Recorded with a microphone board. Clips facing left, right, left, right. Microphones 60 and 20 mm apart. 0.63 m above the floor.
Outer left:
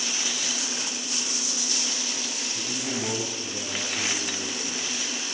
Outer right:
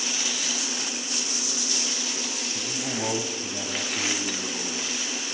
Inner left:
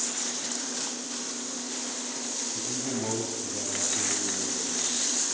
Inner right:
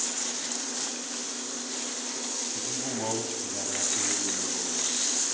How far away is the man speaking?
About 2.5 m.